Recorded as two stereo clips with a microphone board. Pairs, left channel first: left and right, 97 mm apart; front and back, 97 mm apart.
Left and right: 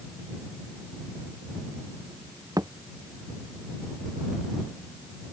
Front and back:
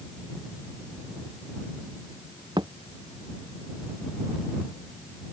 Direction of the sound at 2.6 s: 140° right.